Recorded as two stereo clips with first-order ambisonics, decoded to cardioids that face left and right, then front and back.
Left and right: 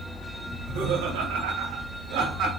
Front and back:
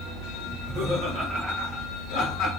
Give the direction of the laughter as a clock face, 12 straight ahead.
4 o'clock.